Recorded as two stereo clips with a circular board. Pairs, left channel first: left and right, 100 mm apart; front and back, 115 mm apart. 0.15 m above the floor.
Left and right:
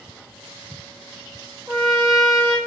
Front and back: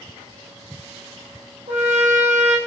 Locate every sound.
1.7 s a trumpet: 175° right, 1.2 m